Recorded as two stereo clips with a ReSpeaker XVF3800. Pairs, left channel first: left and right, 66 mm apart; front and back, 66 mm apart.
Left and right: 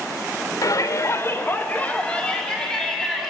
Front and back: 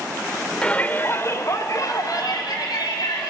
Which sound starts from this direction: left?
A shout, at 0.6 s.